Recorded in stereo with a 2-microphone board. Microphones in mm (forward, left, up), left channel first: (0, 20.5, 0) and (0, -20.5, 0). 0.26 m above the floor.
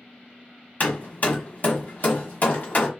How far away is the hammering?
About 1.0 m.